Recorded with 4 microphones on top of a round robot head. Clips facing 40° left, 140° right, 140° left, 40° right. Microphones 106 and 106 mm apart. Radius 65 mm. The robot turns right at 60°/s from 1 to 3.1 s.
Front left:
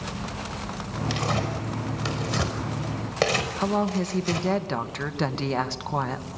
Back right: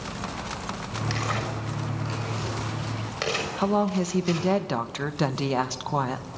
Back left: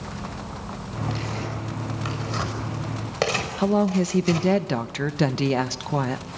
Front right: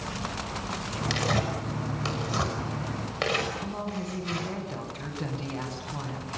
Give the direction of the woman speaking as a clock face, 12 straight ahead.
7 o'clock.